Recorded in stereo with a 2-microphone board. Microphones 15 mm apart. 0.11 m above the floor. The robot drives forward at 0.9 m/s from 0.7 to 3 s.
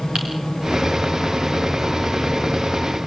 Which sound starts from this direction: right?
Typing on a keyboard, at 0.1 s.